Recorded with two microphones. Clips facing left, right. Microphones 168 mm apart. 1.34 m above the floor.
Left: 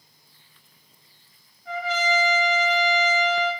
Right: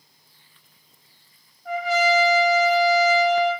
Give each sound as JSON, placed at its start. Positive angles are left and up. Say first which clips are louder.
{"t": 1.6, "sound": "a trumpet", "louder": "right 5 dB", "side_deg": -55, "distance_m": 1.8}